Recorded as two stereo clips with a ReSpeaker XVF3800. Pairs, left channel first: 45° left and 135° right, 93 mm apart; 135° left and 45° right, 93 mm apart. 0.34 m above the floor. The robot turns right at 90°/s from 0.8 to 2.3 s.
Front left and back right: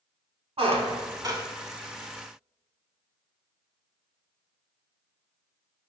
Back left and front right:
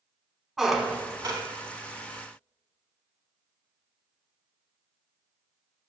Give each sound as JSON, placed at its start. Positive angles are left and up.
{"t": 0.6, "sound": "a squeak", "azimuth_deg": -130, "distance_m": 0.6}